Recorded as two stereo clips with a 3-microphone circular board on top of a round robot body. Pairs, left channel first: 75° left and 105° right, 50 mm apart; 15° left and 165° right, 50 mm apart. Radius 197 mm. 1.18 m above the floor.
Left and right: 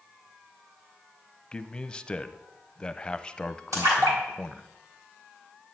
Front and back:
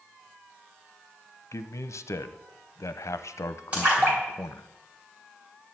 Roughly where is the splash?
Right.